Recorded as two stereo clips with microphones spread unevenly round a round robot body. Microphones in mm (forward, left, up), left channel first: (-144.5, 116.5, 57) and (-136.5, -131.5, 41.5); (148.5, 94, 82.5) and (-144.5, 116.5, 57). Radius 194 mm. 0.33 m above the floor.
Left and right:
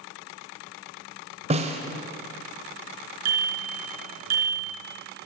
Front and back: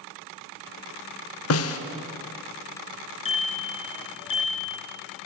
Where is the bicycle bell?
80° right, 3.5 m.